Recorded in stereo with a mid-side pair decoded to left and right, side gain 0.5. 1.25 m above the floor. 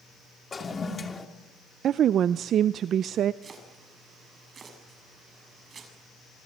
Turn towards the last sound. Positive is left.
turn(degrees=-40)